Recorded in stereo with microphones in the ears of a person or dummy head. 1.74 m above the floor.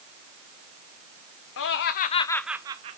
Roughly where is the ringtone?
I don't hear a ringtone.